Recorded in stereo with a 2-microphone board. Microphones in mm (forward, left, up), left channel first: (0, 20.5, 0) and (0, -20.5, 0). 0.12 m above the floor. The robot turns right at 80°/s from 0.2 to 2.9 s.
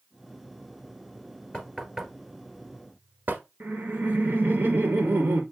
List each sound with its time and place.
1.5 s knocking: 25° left (ahead or behind), 1.4 m; by 3.4 s 55° right (ahead or behind), 1.4 m
3.6 s laughter: 50° right (ahead or behind), 2.5 m